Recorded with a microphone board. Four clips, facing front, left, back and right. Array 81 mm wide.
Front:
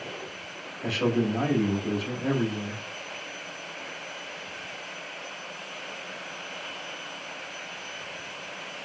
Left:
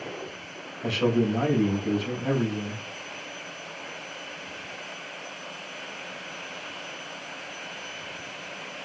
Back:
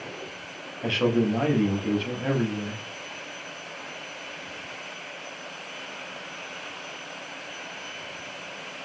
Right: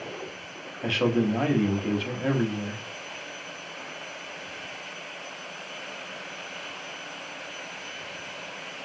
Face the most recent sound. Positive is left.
turn(degrees=-125)